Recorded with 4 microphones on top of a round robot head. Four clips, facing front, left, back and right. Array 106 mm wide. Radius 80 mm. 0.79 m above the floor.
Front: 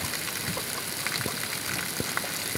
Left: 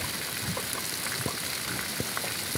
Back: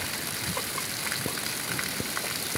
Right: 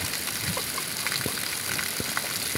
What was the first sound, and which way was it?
Only background noise.